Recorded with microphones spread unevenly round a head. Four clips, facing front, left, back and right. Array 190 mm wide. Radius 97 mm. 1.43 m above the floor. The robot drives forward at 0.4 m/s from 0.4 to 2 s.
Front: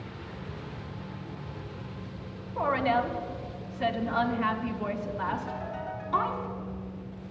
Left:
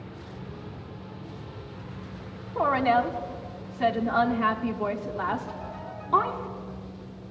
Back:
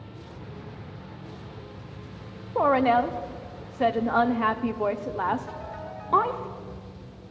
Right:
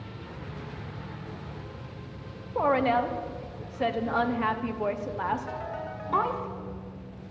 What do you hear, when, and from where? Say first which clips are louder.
2.5 s a woman speaking: left 1 dB, back 6 dB; 165° right, 0.9 m
5.5 s a ringtone: right 2 dB, front 2 dB; 90° right, 3.5 m